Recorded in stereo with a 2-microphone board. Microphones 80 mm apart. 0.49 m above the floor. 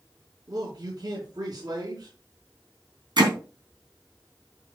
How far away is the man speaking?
About 4 m.